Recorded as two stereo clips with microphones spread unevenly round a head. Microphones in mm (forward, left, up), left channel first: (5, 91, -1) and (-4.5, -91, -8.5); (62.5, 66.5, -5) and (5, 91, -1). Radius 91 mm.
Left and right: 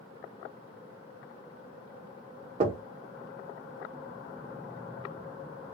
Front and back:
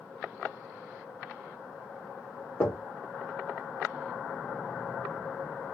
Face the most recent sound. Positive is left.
turn(degrees=-70)